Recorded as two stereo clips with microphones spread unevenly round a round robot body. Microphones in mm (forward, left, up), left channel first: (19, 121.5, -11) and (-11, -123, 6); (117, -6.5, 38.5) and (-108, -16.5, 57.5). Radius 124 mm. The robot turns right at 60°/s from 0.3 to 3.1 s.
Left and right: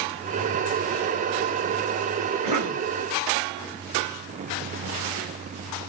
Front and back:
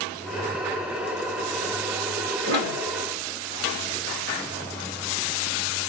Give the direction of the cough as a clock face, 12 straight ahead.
6 o'clock.